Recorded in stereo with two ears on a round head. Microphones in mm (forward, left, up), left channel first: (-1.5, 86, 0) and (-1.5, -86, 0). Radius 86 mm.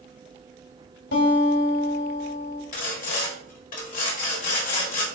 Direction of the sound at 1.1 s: 55° left (ahead or behind).